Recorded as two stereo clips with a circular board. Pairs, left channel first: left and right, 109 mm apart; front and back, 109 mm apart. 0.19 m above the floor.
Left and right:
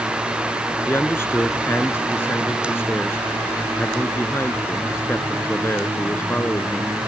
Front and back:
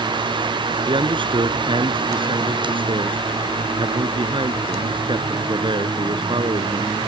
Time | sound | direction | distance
0.9 | a man speaking | 155° left | ?